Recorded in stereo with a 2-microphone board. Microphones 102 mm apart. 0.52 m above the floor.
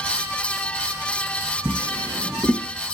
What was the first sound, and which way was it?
A drawer, 45° right (ahead or behind).